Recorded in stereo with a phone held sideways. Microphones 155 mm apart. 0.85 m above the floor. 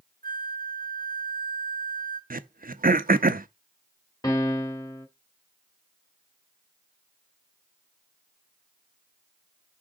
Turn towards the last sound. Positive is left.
turn(degrees=25)  # may be behind; listen again after turning